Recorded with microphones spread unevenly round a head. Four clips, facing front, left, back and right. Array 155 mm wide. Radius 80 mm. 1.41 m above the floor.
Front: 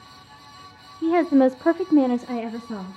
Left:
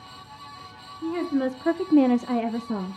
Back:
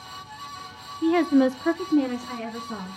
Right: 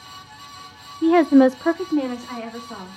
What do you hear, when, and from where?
1.0 s a woman speaking: 75° right, 0.9 m; by 3.0 s 50° left, 1.4 m